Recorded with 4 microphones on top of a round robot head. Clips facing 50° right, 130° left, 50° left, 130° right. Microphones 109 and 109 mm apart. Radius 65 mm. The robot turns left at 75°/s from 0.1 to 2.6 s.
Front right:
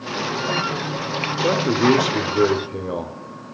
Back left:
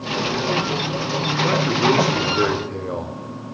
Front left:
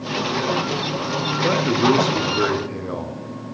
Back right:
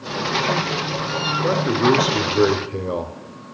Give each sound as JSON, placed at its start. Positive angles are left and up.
{"t": 1.4, "sound": "a man speaking", "azimuth_deg": -20, "distance_m": 0.8}